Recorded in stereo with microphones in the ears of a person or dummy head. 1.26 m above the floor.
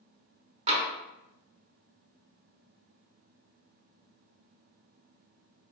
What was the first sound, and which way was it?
Tapping, 30° right (ahead or behind).